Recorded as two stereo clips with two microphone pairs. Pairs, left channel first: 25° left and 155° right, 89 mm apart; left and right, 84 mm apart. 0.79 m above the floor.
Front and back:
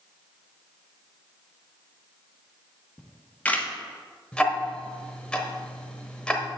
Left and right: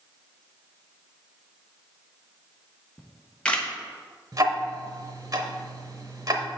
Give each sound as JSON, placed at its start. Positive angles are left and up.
{"t": 3.0, "sound": "a camera shutter", "azimuth_deg": 40, "distance_m": 1.0}
{"t": 4.3, "sound": "ticking", "azimuth_deg": -50, "distance_m": 0.9}